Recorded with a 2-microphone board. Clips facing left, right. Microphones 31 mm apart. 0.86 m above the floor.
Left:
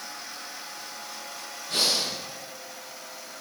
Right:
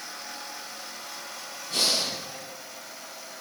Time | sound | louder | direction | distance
1.7 | breathing | even | 85° left | 10 m